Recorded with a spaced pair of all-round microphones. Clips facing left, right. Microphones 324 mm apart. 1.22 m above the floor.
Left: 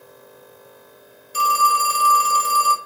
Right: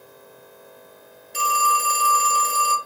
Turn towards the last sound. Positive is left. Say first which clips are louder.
# left 2 dB
turn(degrees=5)  # may be behind; listen again after turning